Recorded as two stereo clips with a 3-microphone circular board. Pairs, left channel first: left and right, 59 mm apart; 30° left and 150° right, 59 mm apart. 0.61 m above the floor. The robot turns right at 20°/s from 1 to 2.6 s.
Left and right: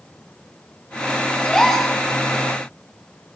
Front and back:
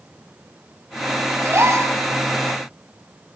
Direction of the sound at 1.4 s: 165° left.